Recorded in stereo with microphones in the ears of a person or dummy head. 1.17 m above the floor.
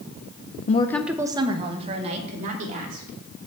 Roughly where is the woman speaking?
Left.